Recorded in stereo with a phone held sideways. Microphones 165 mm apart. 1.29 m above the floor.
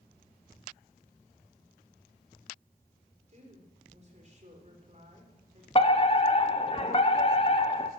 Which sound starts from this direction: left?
A fire alarm, at 5.8 s.